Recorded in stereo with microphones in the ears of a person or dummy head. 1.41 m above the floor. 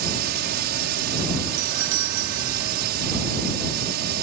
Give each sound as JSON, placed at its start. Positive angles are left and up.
{"t": 0.0, "sound": "a drone", "side_deg": -55}
{"t": 1.6, "sound": "a doorbell", "side_deg": -70}